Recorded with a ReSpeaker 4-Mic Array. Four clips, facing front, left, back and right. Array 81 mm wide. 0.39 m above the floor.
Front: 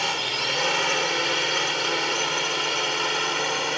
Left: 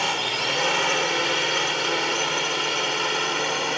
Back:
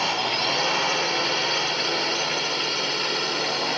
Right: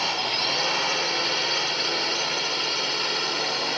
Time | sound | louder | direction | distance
0.0 | a drone | left 2 dB, back 3 dB | 70° left | ?